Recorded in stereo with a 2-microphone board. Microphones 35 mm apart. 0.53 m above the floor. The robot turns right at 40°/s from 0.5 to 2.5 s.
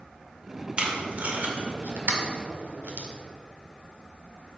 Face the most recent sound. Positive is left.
turn(degrees=-50)  # may be behind; listen again after turning